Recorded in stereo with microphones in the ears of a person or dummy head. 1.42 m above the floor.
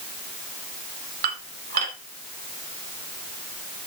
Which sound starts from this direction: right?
Dishes clattering, at 1.2 s.